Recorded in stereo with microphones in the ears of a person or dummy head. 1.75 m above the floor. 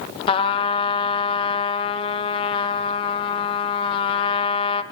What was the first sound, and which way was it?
A trumpet, 30° left (ahead or behind).